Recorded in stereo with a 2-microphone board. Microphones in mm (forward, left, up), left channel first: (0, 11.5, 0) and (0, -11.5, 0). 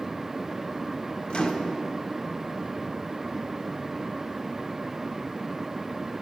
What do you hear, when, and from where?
1.3 s a microwave: 45° left (ahead or behind), 1.3 m